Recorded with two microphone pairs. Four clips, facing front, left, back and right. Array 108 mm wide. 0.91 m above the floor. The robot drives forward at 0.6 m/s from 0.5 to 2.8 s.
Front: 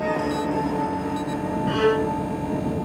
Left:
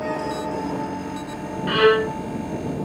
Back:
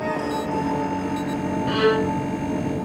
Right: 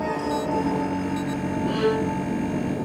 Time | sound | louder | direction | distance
1.7 | a violin | left 7 dB, back 1 dB | 100° left | ?